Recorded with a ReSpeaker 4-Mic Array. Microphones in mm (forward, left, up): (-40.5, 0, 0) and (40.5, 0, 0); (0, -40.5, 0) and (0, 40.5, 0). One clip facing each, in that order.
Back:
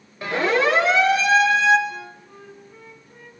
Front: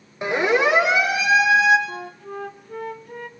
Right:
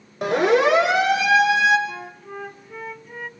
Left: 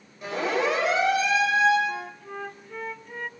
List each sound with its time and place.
0.2 s a siren: 70° right, 6.5 m; by 1.8 s 80° right, 5.5 m
1.9 s a flute: straight ahead, 0.9 m